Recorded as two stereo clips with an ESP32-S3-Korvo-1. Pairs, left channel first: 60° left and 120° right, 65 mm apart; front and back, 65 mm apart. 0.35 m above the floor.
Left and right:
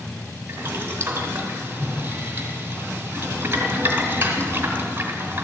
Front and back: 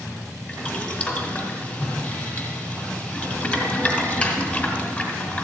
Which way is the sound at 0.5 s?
60° right.